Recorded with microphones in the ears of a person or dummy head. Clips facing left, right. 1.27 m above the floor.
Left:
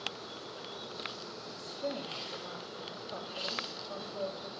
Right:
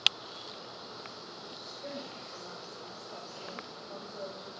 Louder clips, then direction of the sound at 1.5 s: Left 6 dB; 70° left (ahead or behind).